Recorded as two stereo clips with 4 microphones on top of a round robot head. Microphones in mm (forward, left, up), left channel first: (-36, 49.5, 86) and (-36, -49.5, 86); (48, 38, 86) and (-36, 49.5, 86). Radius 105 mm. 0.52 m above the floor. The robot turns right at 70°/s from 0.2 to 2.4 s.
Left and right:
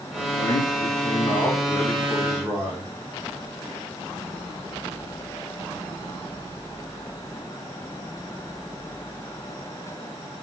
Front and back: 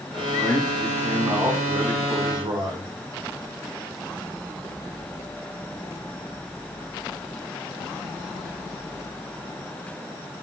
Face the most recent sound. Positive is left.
turn(degrees=-160)